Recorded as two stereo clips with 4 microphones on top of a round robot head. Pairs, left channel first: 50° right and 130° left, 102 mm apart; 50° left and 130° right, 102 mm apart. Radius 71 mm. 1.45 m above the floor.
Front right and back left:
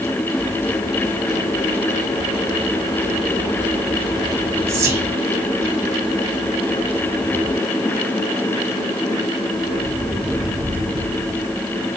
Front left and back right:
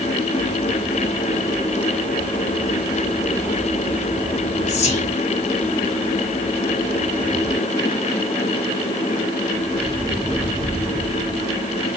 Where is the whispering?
70° left, 2 m.